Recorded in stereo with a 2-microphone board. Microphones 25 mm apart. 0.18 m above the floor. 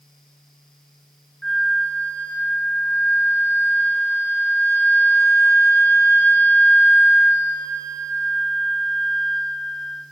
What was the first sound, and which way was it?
A flute, 60° left (ahead or behind).